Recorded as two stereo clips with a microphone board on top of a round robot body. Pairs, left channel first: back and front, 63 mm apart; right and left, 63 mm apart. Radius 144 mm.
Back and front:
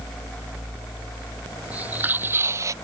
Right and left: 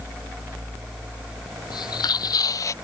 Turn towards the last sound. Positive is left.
turn(degrees=-45)